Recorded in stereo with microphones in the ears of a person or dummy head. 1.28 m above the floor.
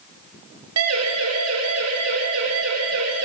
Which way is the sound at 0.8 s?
75° right (ahead or behind).